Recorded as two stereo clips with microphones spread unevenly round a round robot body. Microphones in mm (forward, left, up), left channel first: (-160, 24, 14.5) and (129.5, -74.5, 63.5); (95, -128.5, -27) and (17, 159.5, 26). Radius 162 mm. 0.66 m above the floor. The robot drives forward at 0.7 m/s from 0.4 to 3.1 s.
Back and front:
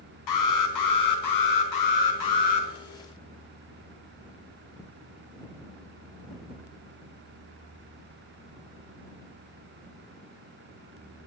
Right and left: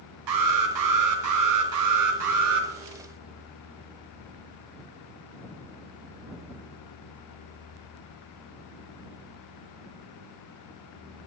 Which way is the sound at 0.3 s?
135° left.